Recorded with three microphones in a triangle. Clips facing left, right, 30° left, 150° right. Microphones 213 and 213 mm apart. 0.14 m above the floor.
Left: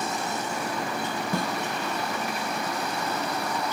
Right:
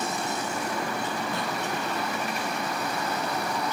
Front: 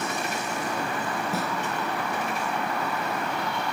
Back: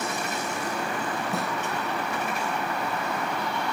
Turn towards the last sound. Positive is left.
turn(degrees=115)